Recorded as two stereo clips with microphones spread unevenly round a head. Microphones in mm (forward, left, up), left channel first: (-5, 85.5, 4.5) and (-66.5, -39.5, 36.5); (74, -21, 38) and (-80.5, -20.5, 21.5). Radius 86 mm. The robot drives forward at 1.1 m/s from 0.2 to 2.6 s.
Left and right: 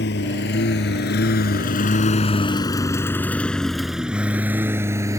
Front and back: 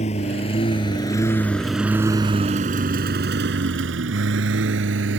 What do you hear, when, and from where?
0.0 s a lawn mower: 50° left; by 5.2 s straight behind